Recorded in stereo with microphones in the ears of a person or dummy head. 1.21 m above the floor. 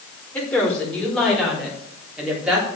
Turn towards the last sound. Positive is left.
turn(degrees=-5)  # may be behind; listen again after turning